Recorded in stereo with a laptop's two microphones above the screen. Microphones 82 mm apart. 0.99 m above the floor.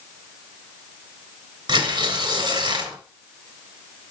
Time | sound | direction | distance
1.7 | tearing paper | 80° right | 3.5 m